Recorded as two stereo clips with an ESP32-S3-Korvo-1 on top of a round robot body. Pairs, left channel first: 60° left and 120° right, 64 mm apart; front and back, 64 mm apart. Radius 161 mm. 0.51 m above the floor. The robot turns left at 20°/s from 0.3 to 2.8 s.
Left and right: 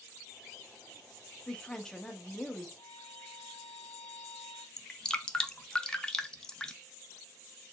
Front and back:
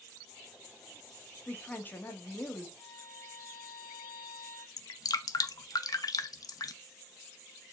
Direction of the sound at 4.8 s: 20° right.